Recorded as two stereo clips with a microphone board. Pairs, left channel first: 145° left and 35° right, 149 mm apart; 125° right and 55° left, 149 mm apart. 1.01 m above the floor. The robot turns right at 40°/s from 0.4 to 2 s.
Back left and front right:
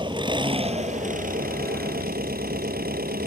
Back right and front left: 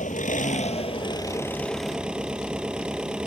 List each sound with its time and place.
0.0 s an engine running: 90° right; by 3.3 s 30° right